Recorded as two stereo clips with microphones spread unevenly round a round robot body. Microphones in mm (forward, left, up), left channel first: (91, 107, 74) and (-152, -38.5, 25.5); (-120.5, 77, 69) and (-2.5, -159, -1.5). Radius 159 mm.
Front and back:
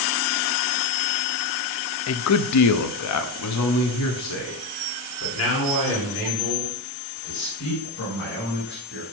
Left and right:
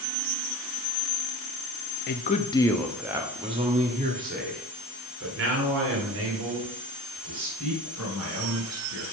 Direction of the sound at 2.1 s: 60° left.